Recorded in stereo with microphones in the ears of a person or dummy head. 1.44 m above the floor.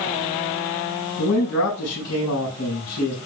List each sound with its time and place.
1.2 s a man speaking: 70° left (ahead or behind), 7 m